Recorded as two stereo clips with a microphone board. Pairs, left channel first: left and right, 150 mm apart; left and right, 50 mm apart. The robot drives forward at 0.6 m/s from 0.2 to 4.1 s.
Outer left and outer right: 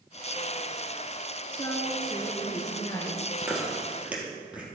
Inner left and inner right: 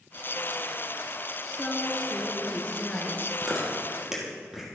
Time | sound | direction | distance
1.5 | a woman speaking | 25° left (ahead or behind) | 1.9 m
3.4 | chewing | 10° right (ahead or behind) | 2 m